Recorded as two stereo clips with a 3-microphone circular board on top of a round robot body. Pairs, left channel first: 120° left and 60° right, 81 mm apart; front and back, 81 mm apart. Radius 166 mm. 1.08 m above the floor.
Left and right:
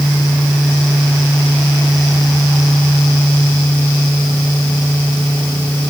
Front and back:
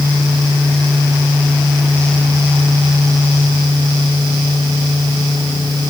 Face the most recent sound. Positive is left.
No sound to turn to.